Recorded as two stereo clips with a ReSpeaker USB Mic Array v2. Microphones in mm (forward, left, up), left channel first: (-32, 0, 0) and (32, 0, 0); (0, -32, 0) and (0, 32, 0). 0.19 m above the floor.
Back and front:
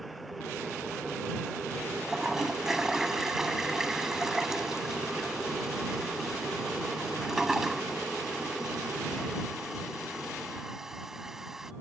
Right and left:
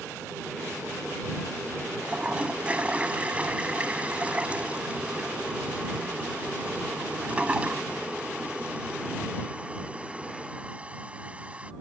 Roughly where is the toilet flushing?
Left.